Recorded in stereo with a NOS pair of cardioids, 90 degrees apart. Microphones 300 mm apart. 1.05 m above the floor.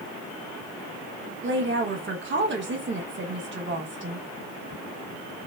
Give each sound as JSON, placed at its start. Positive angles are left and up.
{"t": 1.4, "sound": "a woman speaking", "azimuth_deg": -40, "distance_m": 1.1}